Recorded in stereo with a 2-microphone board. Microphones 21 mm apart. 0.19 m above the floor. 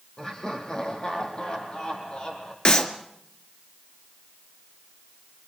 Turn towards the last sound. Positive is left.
turn(degrees=40)  # may be behind; listen again after turning